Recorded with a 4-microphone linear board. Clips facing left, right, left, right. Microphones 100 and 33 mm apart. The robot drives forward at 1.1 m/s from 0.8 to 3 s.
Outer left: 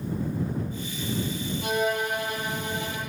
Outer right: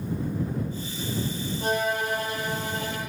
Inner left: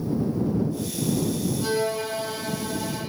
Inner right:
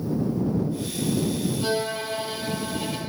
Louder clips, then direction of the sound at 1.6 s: Even, inner left 1 dB; 40° right (ahead or behind).